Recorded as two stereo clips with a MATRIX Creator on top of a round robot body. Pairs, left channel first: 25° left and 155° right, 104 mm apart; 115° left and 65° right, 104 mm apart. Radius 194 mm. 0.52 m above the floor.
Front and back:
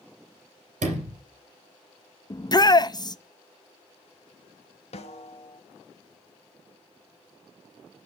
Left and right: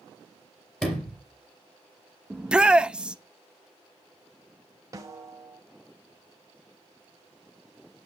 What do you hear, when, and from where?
0.8 s a sliding door: 165° right, 3 m
2.3 s a shout: 10° left, 0.9 m
4.9 s a snare drum: 5° right, 0.9 m